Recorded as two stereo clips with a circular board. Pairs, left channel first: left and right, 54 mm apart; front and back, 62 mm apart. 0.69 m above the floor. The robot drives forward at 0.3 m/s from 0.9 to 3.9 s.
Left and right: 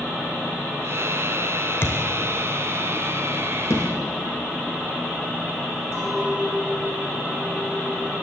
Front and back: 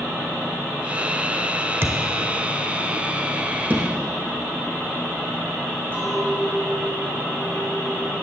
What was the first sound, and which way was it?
A thud, 135° left.